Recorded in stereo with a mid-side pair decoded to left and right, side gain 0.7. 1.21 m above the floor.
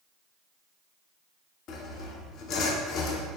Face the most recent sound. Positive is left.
turn(degrees=55)